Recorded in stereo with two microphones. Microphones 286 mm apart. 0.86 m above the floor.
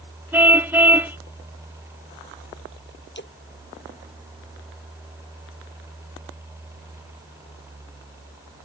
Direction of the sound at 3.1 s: 35° left (ahead or behind).